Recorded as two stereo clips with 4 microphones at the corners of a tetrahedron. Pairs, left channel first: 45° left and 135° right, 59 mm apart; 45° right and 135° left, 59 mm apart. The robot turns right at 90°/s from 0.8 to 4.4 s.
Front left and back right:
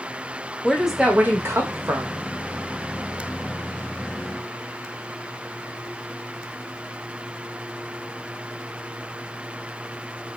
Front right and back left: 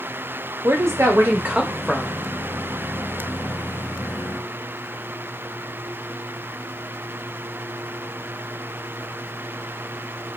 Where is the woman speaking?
135° left, 0.6 m; by 2.2 s 95° right, 0.6 m.